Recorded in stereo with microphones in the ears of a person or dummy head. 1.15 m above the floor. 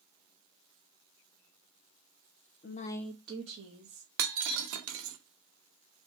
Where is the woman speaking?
40° left (ahead or behind), 0.6 m; by 4.1 s 40° right (ahead or behind), 1.6 m.